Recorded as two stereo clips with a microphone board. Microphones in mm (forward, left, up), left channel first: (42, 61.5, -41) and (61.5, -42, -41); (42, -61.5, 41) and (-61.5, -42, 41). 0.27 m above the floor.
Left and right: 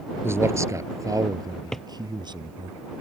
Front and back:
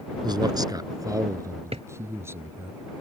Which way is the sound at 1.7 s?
175° right.